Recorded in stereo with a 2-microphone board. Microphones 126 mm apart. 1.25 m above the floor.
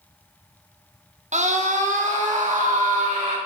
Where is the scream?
65° right (ahead or behind), 1.2 m; by 3.4 s 85° right, 2.5 m.